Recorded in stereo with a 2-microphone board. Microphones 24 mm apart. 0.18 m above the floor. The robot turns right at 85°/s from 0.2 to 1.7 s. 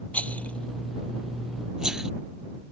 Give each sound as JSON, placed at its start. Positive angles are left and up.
{"t": 0.1, "sound": "a rattle", "side_deg": 75}